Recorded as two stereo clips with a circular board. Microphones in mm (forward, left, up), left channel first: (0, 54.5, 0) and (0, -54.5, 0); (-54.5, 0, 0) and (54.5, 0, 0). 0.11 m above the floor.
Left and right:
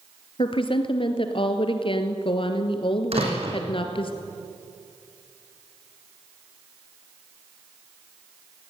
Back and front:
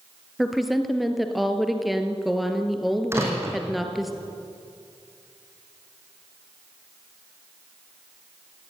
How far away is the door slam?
About 4 m.